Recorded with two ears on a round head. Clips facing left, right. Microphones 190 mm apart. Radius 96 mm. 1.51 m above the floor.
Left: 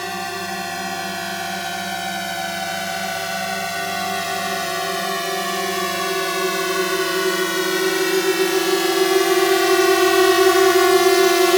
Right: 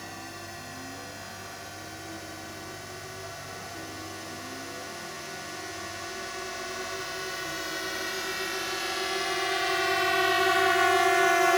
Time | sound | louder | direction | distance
0.0 | a drone | left 14 dB | 75° left (ahead or behind) | ?